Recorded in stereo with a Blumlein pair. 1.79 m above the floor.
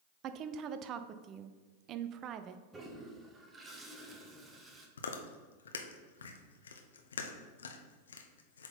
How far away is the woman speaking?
About 0.5 m.